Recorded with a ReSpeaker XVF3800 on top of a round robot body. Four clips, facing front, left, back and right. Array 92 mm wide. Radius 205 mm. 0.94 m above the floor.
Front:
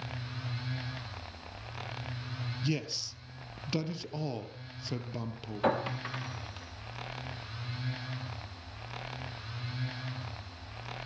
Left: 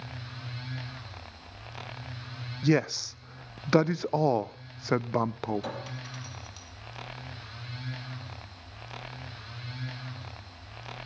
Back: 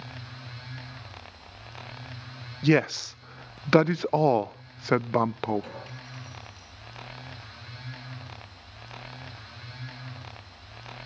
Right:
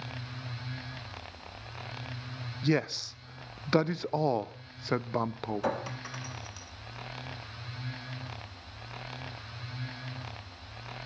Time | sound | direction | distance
2.6 | a man speaking | 170° left | 0.6 m
5.6 | a clink | 25° right | 1.1 m